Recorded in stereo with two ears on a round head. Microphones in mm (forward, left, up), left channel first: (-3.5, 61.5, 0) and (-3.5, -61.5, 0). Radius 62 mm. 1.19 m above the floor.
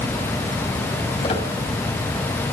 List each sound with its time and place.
1.2 s a squeak: 40° left (ahead or behind), 5.5 m